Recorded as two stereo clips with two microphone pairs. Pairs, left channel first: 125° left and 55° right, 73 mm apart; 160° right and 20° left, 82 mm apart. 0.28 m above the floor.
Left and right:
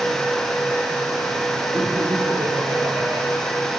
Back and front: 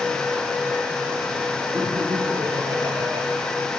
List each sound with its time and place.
1.8 s laughter: 15° right, 7 m; by 3.3 s 20° right, 5.5 m